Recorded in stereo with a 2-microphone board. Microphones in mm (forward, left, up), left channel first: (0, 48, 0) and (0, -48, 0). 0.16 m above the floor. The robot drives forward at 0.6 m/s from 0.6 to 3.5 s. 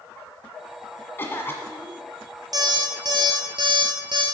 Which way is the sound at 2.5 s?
40° right (ahead or behind).